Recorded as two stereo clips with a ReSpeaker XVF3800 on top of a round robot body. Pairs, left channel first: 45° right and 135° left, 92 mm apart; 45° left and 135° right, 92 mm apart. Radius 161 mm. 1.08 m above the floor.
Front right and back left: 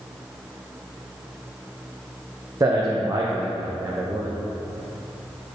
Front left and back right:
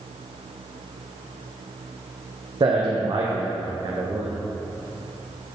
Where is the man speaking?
170° right, 0.9 m.